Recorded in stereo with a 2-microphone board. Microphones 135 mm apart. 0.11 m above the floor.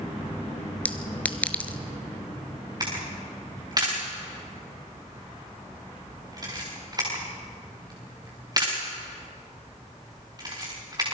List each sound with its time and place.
0.8 s a clink: 10° left (ahead or behind), 0.9 m
2.8 s a camera shutter: 30° right (ahead or behind), 6 m